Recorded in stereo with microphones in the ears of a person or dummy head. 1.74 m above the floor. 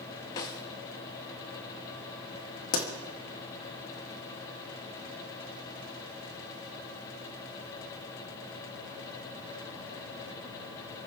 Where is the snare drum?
20° left (ahead or behind), 0.7 m.